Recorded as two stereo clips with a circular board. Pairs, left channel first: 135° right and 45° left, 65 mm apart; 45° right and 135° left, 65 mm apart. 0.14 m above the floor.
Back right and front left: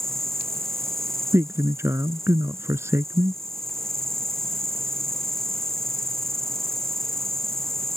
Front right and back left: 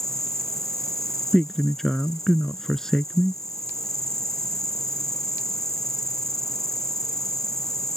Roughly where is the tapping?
I don't hear tapping.